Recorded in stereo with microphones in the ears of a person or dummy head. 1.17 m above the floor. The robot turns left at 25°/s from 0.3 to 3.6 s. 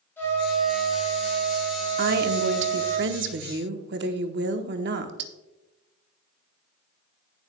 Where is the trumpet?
15° left, 4 m; by 3.0 s 55° right, 4 m.